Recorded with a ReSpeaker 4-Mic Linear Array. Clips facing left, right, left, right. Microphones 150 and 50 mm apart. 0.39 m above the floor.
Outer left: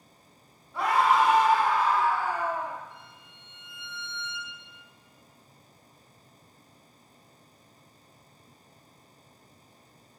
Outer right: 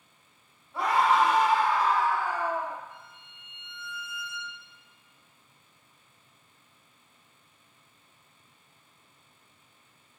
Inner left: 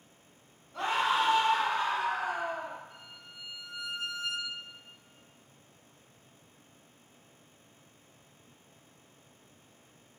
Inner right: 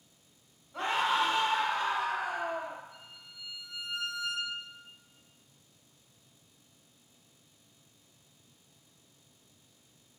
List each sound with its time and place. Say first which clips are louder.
0.7 s a scream: outer left 1 dB, inner left 1 dB; 5° right (ahead or behind), 1.3 m; by 2.8 s 45° left (ahead or behind), 1.7 m
2.9 s a violin: even, inner left 2 dB; 60° left (ahead or behind), 1.3 m